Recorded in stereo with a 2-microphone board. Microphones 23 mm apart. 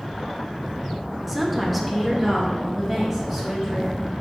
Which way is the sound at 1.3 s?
5° right (ahead or behind).